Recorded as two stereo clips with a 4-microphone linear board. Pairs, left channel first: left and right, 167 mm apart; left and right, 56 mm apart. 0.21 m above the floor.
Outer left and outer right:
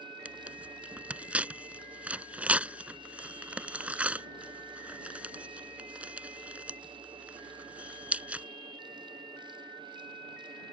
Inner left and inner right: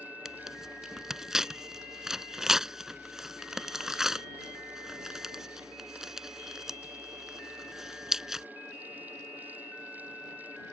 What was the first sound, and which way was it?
Tearing paper, 10° right (ahead or behind).